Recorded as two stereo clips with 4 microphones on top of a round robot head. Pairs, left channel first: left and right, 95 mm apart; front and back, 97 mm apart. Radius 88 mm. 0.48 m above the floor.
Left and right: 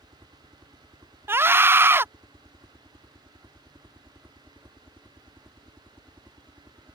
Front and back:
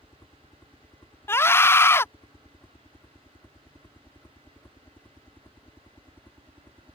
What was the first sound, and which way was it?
A helicopter, 50° right.